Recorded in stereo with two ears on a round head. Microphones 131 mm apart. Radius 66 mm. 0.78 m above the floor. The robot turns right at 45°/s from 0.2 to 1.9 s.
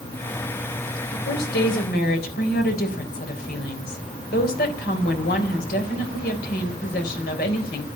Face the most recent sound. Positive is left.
turn(degrees=105)